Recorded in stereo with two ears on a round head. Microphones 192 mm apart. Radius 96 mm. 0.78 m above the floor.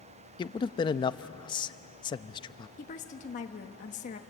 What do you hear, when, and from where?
0.4 s a man speaking: 20° left (ahead or behind), 0.5 m
2.8 s a woman speaking: 35° left (ahead or behind), 1.3 m